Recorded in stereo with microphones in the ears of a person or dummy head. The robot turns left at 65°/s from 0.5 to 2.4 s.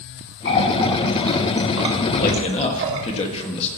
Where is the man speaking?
40° left (ahead or behind), 1.5 m; by 3.7 s 30° left (ahead or behind), 1.5 m.